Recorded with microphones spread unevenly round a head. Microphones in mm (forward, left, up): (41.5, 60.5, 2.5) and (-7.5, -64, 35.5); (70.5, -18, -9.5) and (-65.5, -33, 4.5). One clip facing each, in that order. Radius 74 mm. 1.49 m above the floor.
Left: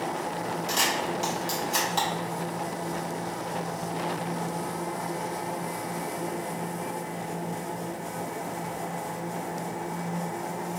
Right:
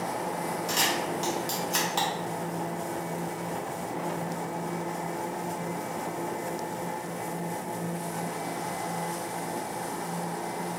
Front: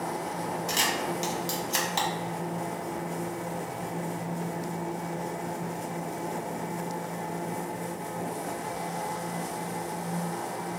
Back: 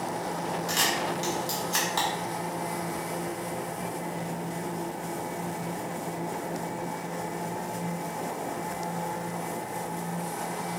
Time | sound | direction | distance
0.7 | a camera shutter | 45° right | 0.9 m